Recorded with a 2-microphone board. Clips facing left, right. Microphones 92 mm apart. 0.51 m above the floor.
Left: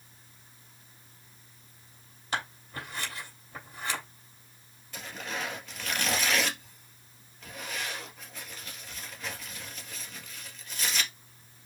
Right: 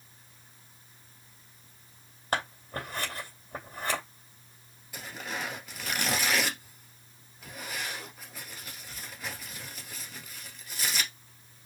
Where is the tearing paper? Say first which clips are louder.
Even; 5° right (ahead or behind), 2 m.